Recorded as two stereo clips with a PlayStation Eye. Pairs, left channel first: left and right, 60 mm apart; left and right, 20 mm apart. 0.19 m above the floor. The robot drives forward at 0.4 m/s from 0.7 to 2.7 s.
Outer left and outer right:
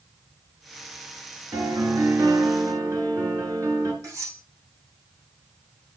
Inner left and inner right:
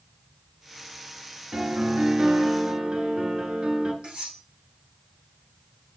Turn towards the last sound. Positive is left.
turn(degrees=-60)  # may be behind; listen again after turning